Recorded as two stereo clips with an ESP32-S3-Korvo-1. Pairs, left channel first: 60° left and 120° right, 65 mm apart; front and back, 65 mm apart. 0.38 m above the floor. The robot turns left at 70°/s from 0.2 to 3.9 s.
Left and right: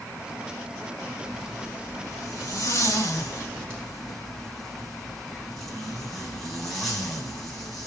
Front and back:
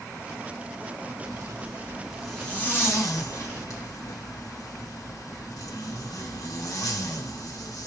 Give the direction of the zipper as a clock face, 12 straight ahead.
7 o'clock.